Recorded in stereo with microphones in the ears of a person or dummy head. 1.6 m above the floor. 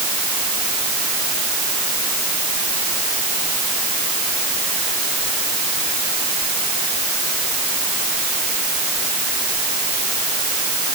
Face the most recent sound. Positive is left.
No sound to turn to.